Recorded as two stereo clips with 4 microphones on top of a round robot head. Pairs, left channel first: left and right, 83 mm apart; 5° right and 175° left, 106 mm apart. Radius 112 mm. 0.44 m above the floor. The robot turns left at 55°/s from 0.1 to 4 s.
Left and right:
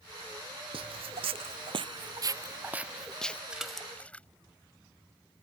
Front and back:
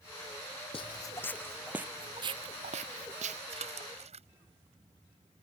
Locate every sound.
0.7 s footsteps: 55° right; by 3.4 s 165° left
3.5 s a splash: 165° right; by 4.3 s 165° left